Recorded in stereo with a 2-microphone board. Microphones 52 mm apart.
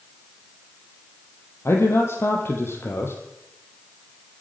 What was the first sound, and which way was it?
A man speaking, 55° left (ahead or behind).